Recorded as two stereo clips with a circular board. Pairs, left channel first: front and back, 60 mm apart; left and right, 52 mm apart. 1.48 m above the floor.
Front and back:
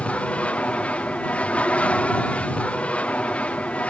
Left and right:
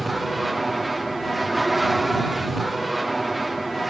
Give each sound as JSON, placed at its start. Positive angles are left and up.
{"t": 0.0, "sound": "an aircraft", "azimuth_deg": -5}